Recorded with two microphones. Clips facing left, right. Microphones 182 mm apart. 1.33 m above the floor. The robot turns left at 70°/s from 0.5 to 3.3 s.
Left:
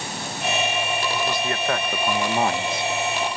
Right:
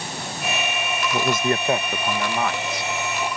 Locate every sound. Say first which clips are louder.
1.1 s a man speaking: right 4 dB; 120° right; by 2.9 s 115° left